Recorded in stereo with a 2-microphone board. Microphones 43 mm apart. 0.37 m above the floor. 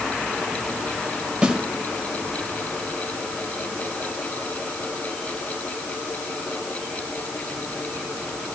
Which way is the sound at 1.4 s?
20° right (ahead or behind).